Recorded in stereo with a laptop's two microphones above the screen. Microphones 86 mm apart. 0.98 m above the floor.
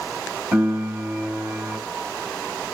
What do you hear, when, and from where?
0.5 s a piano: 30° right (ahead or behind), 1.7 m